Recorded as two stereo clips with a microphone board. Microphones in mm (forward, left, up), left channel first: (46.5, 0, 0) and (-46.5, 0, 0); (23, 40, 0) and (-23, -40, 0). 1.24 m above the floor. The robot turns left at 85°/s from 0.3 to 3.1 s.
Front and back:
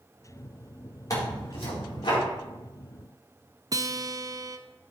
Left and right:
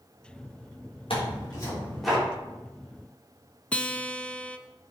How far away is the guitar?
About 0.5 m.